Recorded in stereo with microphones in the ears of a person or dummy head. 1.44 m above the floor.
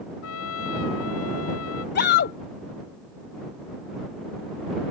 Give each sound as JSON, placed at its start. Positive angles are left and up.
{"t": 0.2, "sound": "a trumpet", "side_deg": 85}
{"t": 1.9, "sound": "a shout", "side_deg": 55}